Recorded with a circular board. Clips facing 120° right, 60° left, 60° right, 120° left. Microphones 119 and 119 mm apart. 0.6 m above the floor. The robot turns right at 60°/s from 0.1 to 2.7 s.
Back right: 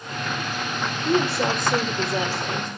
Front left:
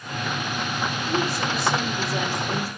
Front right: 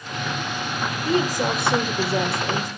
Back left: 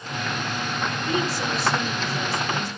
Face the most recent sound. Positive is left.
turn(degrees=-20)